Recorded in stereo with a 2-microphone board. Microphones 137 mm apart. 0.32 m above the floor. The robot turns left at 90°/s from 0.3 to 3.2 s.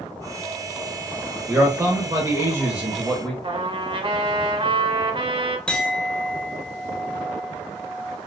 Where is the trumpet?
40° right (ahead or behind), 0.7 m.